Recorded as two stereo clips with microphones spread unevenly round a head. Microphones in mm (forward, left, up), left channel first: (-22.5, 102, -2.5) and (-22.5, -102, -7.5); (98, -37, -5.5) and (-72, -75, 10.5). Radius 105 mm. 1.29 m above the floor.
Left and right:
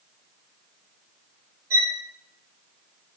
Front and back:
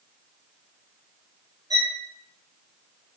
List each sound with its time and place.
1.7 s a violin: 100° right, 2.5 m